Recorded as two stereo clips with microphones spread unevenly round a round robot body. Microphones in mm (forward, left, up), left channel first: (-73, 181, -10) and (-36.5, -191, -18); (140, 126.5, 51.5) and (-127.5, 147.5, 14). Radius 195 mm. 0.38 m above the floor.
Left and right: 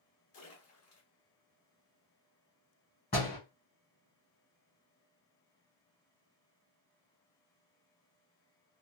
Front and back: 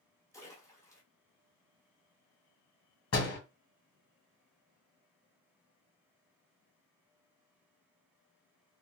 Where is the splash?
80° left, 1.6 m.